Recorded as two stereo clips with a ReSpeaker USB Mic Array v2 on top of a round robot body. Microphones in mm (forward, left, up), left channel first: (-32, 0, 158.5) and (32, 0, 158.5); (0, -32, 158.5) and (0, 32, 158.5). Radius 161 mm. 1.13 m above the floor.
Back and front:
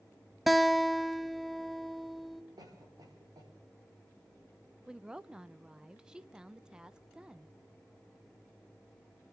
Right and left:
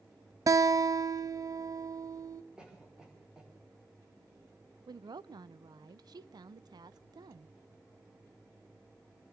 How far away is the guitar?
About 0.8 m.